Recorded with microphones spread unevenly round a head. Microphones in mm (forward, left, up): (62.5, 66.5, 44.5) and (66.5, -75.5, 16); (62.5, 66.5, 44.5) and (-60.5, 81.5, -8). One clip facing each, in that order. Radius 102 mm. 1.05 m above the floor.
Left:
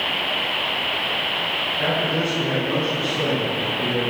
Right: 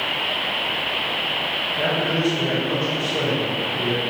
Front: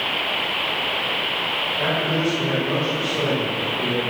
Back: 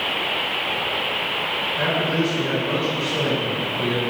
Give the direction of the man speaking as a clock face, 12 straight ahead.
3 o'clock.